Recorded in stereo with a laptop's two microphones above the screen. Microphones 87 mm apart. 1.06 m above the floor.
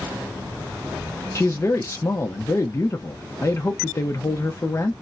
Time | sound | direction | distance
1.4 | a man speaking | 35° left (ahead or behind) | 0.7 m